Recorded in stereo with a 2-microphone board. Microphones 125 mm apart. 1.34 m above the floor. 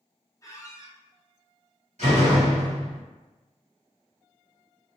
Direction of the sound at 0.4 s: 25° left (ahead or behind).